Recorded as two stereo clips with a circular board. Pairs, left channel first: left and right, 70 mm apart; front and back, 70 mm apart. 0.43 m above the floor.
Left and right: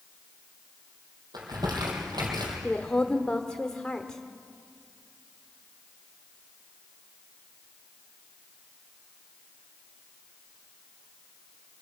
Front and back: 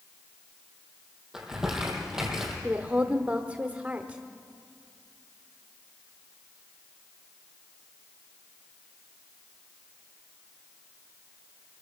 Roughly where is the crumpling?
Right.